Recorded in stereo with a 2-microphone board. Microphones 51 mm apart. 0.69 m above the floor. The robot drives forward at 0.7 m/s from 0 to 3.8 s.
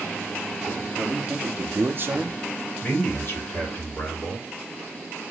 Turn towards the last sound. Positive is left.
turn(degrees=30)  # may be behind; listen again after turning